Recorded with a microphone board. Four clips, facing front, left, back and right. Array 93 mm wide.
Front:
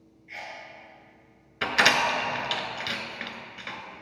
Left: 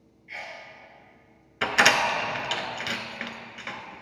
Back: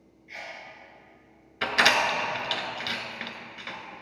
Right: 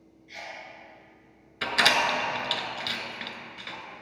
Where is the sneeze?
75° left, 1.9 m.